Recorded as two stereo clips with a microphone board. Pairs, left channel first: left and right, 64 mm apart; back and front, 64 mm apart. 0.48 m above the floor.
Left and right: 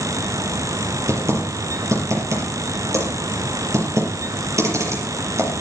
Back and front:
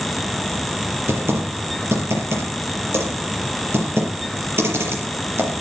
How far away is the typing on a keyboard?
About 6 m.